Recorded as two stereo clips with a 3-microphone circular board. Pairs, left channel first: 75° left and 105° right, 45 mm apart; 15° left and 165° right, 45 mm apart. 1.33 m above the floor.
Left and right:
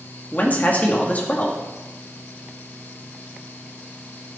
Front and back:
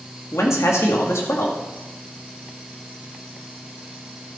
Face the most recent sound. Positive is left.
turn(degrees=20)